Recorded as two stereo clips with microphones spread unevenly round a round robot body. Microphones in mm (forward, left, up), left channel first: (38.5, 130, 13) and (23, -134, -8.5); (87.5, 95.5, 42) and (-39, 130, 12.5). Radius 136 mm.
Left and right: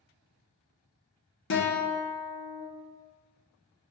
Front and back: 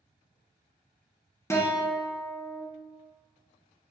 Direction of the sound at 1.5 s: 60° left.